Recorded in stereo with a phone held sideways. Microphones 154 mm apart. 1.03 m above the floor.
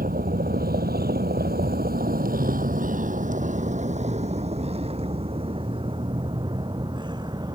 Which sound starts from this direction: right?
A vehicle, at 0.0 s.